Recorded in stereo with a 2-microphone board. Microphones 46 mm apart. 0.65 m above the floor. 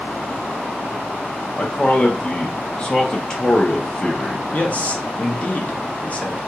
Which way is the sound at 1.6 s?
20° left (ahead or behind).